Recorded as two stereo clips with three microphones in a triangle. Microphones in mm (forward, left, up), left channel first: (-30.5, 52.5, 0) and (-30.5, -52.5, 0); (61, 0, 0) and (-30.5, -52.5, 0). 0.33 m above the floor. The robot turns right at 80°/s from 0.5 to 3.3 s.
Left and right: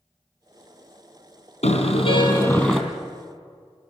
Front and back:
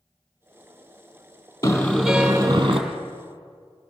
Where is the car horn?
85° left, 3.5 m; by 2.8 s 175° left, 3.5 m.